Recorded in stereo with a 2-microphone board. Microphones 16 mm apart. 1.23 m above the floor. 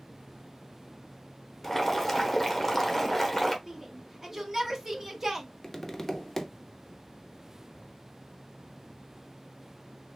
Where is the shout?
20° right (ahead or behind), 1.3 m.